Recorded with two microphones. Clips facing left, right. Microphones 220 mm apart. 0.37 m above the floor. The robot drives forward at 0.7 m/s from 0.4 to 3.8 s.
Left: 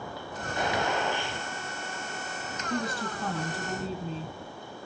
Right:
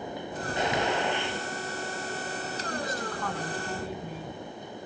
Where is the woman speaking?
30° left (ahead or behind), 2.5 m; by 4.3 s 25° left (ahead or behind), 3.5 m.